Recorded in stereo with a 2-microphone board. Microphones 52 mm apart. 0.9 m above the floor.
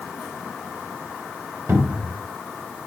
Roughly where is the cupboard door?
Right.